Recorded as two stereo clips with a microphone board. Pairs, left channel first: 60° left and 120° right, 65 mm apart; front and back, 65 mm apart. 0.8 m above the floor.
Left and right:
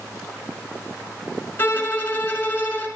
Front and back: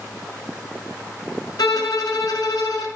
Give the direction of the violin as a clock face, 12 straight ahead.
12 o'clock.